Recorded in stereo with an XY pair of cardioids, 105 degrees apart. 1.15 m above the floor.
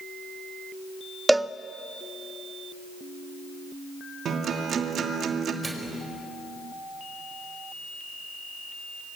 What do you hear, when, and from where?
1.3 s a cowbell: 10° right, 0.7 m
4.2 s a guitar: 55° right, 2.5 m
5.6 s a microwave: 15° right, 4.5 m